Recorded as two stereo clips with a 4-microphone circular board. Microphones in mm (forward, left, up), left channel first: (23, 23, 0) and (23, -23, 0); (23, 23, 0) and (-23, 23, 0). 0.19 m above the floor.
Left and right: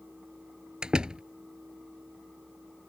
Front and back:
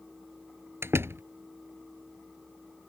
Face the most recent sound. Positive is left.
turn(degrees=-160)